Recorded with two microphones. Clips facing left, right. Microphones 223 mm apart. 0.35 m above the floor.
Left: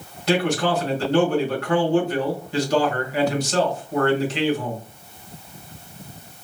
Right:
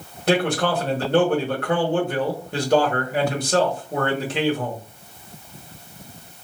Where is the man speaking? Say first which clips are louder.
Even; 50° right (ahead or behind), 1.6 m.